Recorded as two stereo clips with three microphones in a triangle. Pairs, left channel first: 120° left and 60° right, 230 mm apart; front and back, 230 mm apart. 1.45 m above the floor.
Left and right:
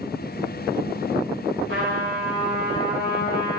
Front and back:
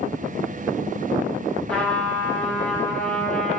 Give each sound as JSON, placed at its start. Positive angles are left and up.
{"t": 1.7, "sound": "a trumpet", "azimuth_deg": -85, "distance_m": 4.5}